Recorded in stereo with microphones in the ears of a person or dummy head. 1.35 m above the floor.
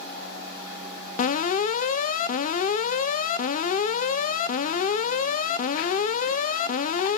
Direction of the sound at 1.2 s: 40° left (ahead or behind).